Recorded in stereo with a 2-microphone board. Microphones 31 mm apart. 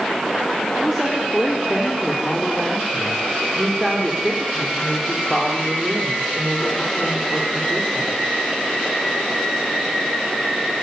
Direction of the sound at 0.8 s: 5° left (ahead or behind).